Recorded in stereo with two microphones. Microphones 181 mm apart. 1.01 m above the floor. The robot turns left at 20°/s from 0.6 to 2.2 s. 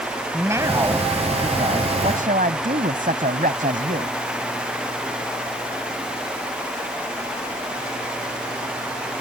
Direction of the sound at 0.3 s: 15° right.